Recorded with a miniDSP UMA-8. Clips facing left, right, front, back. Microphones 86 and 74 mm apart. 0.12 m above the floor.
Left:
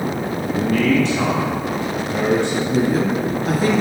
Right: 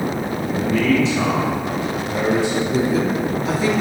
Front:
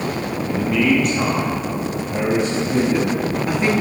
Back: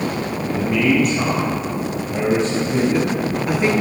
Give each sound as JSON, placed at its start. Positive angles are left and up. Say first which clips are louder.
{"t": 0.5, "sound": "a man speaking", "louder": "left 1 dB, even", "azimuth_deg": 95, "distance_m": 3.0}
{"t": 2.7, "sound": "a woman speaking", "louder": "left 1 dB, front 1 dB", "azimuth_deg": 90, "distance_m": 1.8}